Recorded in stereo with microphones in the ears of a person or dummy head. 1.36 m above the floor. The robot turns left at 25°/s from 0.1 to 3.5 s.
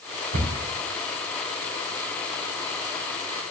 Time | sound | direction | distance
0.3 | a cupboard door | 80° right | 3.5 m